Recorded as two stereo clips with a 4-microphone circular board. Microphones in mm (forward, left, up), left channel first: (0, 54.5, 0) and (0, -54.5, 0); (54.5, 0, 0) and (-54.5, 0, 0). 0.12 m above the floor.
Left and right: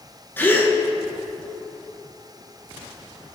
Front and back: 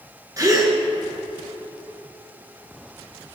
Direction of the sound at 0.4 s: 150° left.